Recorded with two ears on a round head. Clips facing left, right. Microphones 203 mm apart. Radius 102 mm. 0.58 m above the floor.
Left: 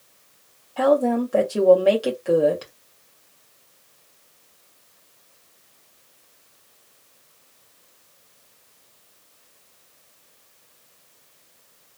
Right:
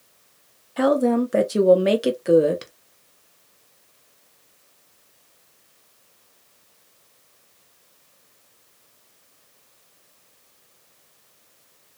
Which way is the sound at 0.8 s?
25° right (ahead or behind).